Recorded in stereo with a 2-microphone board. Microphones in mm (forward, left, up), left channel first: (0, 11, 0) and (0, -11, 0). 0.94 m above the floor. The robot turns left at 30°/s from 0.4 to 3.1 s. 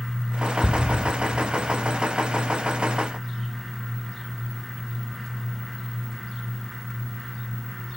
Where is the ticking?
20° left (ahead or behind), 1.1 m.